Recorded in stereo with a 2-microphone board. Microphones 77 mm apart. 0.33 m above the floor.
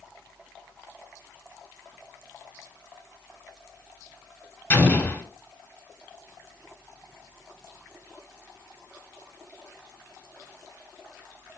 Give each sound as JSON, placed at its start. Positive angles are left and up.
{"t": 4.7, "sound": "an explosion", "side_deg": 25, "distance_m": 0.9}